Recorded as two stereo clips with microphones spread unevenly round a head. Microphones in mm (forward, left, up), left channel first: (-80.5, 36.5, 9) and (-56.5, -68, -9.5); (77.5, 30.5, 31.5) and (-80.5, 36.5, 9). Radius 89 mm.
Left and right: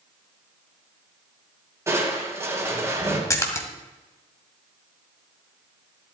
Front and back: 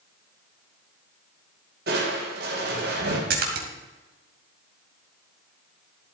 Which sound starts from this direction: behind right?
Crushing, at 1.9 s.